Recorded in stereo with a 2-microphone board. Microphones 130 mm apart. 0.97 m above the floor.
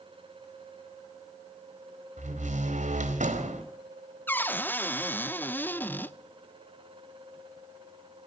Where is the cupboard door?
15° left (ahead or behind), 0.6 m.